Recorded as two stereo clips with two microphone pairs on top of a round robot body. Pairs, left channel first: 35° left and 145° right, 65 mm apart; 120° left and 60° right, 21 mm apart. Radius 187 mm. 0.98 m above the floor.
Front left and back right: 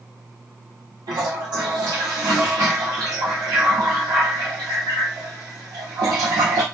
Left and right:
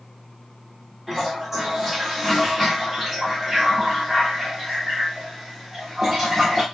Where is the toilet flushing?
135° right, 0.7 m.